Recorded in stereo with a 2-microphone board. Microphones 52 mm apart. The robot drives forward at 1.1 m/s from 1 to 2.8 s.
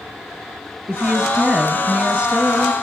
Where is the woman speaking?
10° right (ahead or behind), 2.5 m; by 2.7 s 20° right (ahead or behind), 1.4 m.